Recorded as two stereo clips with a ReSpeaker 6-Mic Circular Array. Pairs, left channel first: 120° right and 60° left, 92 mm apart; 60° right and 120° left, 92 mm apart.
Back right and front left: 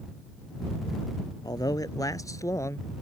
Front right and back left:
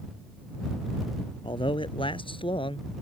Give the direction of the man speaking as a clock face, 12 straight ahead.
3 o'clock.